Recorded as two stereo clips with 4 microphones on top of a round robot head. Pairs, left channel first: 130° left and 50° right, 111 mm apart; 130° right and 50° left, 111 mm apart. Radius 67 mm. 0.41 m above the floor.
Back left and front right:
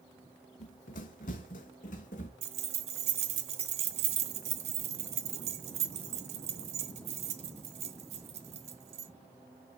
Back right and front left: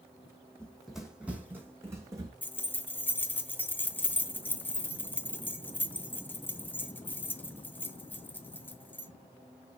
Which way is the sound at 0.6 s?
150° left.